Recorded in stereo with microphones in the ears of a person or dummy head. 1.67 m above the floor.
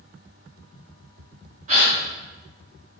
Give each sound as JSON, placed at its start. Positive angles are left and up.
{"t": 1.7, "sound": "a gasp", "side_deg": -40, "distance_m": 0.6}